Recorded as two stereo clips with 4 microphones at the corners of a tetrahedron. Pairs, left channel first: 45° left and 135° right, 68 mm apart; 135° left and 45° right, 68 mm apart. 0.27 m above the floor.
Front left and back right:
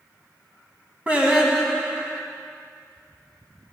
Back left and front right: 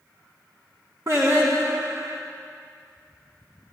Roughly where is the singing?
Right.